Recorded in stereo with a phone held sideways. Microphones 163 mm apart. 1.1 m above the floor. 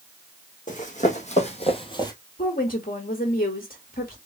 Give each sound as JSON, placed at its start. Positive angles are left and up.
{"t": 0.7, "sound": "running footsteps", "side_deg": 50, "distance_m": 2.5}
{"t": 2.4, "sound": "a woman speaking", "side_deg": 65, "distance_m": 1.5}